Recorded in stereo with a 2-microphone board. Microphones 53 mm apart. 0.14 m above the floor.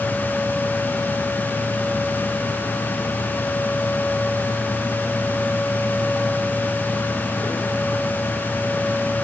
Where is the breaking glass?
No breaking glass in this recording.